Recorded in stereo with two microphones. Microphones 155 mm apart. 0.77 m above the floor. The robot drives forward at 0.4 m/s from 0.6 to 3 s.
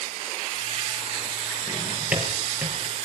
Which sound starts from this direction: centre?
A drawer, at 1.7 s.